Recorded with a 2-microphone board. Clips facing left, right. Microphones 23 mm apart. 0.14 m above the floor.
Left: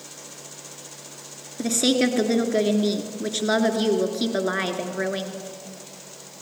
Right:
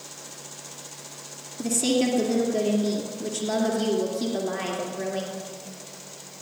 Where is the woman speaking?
45° left (ahead or behind), 2.0 m.